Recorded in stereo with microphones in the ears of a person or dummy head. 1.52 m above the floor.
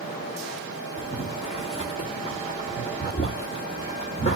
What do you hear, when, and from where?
1.0 s boiling: 30° left (ahead or behind), 1.6 m